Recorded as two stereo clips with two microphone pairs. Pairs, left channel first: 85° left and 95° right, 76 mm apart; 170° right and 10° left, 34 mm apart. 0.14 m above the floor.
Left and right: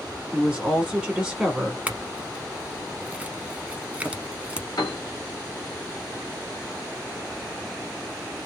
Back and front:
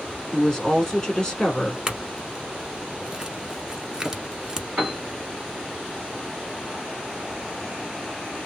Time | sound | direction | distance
0.3 | a woman speaking | 160° right | 1.7 m
1.9 | a clink | 40° right | 0.7 m
4.8 | a piano | 55° left | 1.4 m